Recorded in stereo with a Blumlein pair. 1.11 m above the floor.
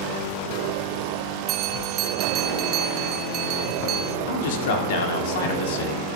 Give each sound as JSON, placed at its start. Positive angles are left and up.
{"t": 1.5, "sound": "a bell", "azimuth_deg": -35, "distance_m": 0.7}
{"t": 4.3, "sound": "a man speaking", "azimuth_deg": 55, "distance_m": 2.5}